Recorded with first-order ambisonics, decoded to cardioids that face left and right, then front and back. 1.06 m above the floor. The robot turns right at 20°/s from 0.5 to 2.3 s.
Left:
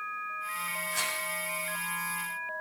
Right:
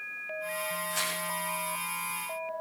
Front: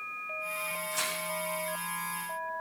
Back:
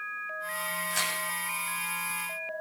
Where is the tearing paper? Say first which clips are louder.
Left 1 dB, back 4 dB; 175° right, 7 m; by 1.2 s 170° right, 7 m.